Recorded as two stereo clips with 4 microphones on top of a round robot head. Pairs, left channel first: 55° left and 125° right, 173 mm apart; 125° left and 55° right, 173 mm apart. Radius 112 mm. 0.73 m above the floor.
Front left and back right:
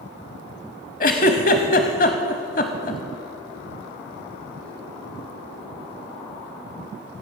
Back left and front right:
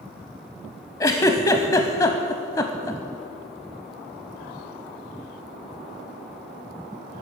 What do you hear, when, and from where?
1.0 s a giggle: 65° left, 0.6 m